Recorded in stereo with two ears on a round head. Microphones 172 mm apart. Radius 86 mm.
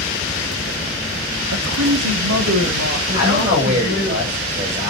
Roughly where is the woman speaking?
Right.